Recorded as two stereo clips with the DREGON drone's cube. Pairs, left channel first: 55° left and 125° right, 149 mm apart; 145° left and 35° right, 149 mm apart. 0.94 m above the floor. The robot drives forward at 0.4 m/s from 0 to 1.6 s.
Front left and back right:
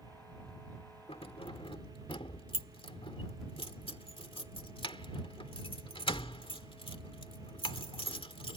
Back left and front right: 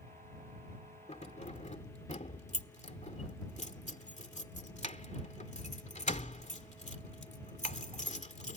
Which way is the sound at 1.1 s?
105° left.